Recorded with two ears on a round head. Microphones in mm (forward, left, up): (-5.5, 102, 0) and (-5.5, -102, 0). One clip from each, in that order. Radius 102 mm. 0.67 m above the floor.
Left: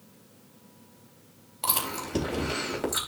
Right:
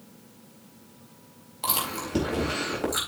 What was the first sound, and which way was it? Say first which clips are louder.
Chewing: right 1 dB; 15° left (ahead or behind).